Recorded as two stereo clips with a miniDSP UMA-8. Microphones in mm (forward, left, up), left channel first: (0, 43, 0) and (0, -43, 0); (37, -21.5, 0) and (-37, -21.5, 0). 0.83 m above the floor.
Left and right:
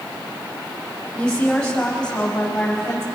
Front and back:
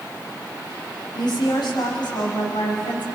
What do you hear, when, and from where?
1.1 s a woman speaking: 10° left, 5.5 m